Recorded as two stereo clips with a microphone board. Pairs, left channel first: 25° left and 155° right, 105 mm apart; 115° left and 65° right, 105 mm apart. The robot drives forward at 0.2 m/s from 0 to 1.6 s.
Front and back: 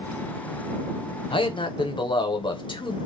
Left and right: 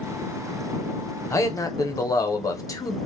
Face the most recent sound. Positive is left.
turn(degrees=55)